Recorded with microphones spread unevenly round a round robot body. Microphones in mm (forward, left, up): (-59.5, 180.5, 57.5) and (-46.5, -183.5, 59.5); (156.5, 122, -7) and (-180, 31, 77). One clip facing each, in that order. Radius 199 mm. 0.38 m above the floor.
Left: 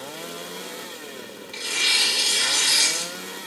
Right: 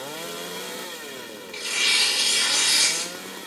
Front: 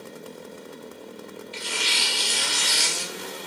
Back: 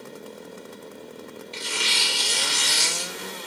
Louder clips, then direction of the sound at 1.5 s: Left 1 dB, back 1 dB; 135° left.